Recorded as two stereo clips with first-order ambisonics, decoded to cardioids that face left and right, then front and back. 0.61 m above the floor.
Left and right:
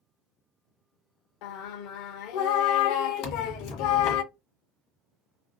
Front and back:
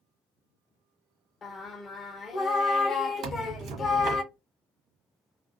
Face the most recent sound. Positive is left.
turn(degrees=125)